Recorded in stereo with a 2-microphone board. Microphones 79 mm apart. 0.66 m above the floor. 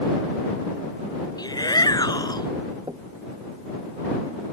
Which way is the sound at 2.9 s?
80° right.